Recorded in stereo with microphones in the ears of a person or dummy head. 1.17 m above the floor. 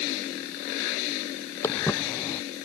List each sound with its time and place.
1.6 s footsteps: 20° left (ahead or behind)